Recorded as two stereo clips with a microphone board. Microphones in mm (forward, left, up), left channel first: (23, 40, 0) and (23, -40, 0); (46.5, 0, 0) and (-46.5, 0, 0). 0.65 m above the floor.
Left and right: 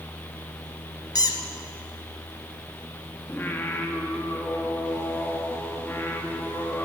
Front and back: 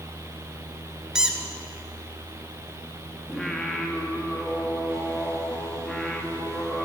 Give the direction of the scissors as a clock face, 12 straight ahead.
No scissors in this recording.